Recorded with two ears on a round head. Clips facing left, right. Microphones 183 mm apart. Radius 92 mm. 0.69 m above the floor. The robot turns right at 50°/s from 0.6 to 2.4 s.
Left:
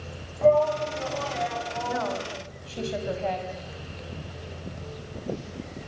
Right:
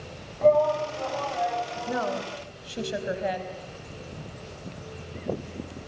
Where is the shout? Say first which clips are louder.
Even; straight ahead, 6.5 m; by 2.1 s 80° left, 6.5 m.